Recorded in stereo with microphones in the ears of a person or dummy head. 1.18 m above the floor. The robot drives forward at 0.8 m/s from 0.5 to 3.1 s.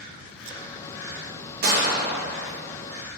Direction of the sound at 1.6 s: 50° right (ahead or behind).